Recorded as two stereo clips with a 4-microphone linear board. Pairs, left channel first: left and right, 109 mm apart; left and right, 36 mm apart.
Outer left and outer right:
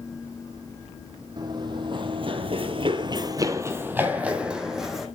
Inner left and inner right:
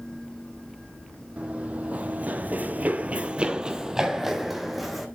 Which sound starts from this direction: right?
Running footsteps, at 1.4 s.